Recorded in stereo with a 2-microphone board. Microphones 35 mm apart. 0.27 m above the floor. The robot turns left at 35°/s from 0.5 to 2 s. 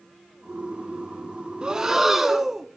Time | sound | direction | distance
1.6 | breathing | 25° right (ahead or behind) | 0.9 m